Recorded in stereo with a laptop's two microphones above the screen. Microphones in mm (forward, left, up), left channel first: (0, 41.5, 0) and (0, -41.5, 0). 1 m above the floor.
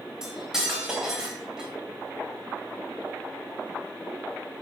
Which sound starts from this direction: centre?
Cutlery clinking, at 0.2 s.